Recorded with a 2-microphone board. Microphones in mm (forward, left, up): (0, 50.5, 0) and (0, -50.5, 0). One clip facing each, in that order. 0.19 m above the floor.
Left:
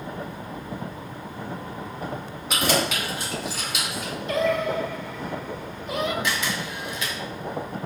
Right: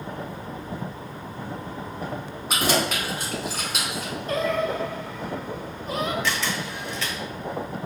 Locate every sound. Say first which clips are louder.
2.5 s keys jangling: even; 35° right (ahead or behind), 1.3 m; by 4.1 s 50° right (ahead or behind), 1.5 m
4.3 s singing: left 1 dB; 40° right (ahead or behind), 0.6 m
6.2 s a camera shutter: even; 15° left (ahead or behind), 1.1 m